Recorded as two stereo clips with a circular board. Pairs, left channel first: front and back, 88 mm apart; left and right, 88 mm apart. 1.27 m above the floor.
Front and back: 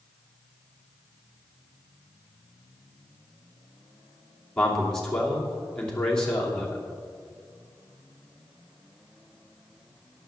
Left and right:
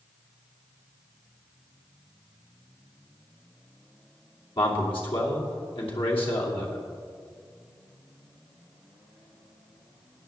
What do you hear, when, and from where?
4.6 s a man speaking: 85° left, 2.5 m